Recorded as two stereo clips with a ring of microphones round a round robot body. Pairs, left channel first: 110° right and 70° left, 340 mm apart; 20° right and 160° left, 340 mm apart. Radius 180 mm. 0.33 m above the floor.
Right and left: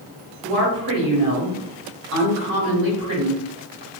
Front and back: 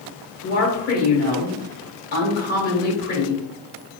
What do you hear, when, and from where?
0.4 s a woman speaking: 35° left, 1.5 m